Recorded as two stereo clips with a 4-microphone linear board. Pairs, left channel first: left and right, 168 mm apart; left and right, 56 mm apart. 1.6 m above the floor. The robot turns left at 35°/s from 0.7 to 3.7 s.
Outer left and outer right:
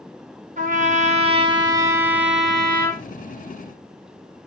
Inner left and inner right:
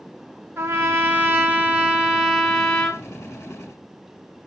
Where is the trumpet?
120° right, 0.7 m; by 3.0 s 160° left, 0.7 m.